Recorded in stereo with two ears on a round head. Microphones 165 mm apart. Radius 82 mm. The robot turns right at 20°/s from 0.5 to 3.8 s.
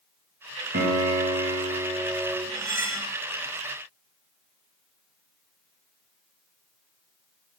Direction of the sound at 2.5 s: 20° right (ahead or behind).